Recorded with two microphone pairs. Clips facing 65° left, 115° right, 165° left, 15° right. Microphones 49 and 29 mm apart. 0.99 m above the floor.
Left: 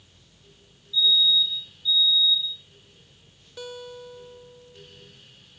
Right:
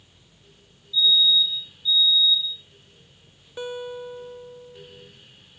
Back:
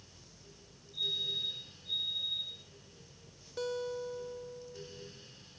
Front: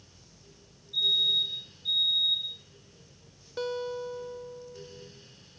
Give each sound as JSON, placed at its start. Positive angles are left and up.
{"t": 0.9, "sound": "a fire alarm", "azimuth_deg": -10, "distance_m": 9.5}
{"t": 3.6, "sound": "a guitar", "azimuth_deg": -65, "distance_m": 0.9}